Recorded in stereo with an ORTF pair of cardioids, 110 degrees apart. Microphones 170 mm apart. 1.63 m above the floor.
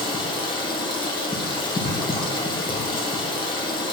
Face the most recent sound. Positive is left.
turn(degrees=25)